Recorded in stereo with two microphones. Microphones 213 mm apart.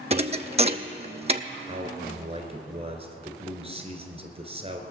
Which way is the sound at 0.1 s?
30° right (ahead or behind).